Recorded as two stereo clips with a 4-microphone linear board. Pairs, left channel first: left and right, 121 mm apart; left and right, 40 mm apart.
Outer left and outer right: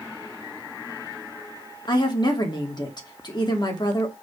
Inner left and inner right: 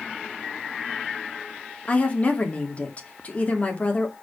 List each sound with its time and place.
1.9 s a woman speaking: 35° left (ahead or behind), 2.5 m